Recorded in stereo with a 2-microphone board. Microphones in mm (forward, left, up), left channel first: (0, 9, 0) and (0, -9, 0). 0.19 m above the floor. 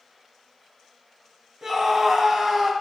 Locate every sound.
1.6 s a scream: 20° right (ahead or behind), 1.2 m